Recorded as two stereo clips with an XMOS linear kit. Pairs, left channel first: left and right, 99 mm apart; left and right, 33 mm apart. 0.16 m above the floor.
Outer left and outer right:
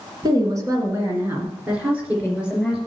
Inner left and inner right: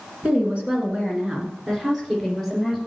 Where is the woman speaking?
40° right (ahead or behind), 2 m; by 2.8 s 5° right (ahead or behind), 3.5 m.